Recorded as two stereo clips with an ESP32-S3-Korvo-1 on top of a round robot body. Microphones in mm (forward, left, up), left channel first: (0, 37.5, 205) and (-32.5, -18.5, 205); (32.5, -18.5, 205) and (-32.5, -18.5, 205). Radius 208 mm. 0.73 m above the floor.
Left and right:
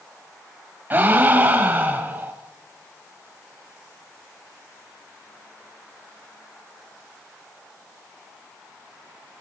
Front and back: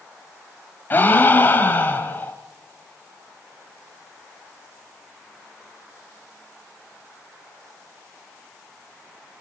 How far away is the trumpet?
No trumpet in this recording.